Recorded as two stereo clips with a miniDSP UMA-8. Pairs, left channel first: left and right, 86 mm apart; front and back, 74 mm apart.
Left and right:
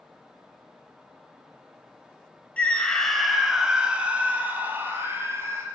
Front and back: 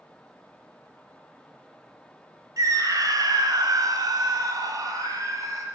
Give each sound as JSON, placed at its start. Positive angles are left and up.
{"t": 2.6, "sound": "a scream", "azimuth_deg": 160, "distance_m": 1.9}